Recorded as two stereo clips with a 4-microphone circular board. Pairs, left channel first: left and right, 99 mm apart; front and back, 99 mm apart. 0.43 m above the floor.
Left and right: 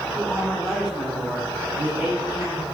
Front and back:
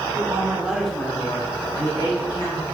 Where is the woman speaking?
165° left, 1.5 m; by 2.6 s 20° right, 3 m.